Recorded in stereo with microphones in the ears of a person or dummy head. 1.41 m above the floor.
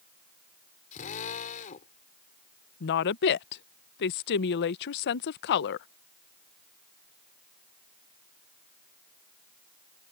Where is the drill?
45° left (ahead or behind).